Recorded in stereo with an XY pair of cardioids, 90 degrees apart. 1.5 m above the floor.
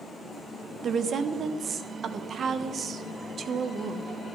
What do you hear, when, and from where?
0.8 s a woman speaking: 60° right, 1.1 m